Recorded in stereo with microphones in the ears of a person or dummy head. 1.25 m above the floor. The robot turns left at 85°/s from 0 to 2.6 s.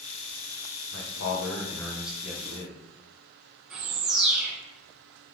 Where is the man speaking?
105° left, 1.2 m; by 2.8 s 40° right, 1.2 m.